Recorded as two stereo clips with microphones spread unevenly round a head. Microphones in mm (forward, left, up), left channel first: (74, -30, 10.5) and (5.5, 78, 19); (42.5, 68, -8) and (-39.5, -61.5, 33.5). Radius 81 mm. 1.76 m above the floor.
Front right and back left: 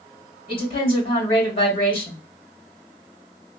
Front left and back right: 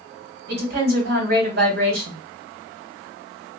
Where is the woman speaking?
100° right, 1.9 m.